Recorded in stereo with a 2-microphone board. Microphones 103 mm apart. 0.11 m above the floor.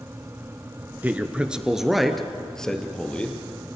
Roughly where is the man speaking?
Centre.